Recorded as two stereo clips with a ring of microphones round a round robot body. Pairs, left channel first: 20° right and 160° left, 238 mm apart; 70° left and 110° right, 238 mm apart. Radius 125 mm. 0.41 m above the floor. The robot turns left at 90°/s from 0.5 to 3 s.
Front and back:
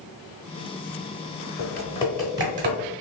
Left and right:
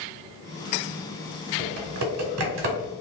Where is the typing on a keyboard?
55° right, 0.9 m; by 2.9 s 175° right, 0.9 m.